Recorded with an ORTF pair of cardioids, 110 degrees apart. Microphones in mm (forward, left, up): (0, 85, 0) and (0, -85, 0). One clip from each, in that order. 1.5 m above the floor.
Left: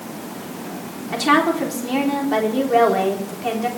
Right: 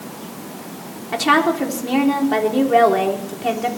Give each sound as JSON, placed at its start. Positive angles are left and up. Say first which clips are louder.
{"t": 1.1, "sound": "a woman speaking", "louder": "right 1 dB", "azimuth_deg": -10, "distance_m": 3.5}